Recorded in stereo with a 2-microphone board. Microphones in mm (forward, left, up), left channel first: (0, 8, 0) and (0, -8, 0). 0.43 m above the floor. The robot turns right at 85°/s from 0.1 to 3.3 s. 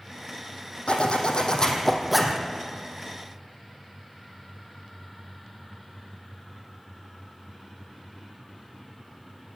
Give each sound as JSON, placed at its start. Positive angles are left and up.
{"t": 0.9, "sound": "a zipper", "azimuth_deg": 75, "distance_m": 3.0}